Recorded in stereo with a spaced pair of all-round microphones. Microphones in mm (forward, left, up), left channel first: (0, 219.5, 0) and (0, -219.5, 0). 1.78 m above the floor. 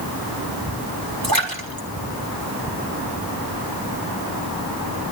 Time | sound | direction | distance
1.2 | a splash | 60° right (ahead or behind) | 3 m